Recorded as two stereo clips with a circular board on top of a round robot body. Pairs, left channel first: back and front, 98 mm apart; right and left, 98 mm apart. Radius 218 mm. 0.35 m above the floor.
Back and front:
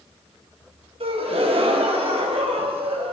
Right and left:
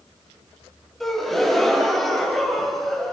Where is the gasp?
5° right, 3 m.